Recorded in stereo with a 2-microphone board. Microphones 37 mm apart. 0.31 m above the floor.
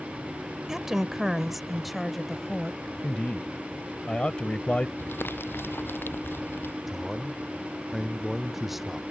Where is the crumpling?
80° left.